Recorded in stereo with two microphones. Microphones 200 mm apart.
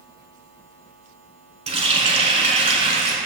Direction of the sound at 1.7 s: 30° right (ahead or behind).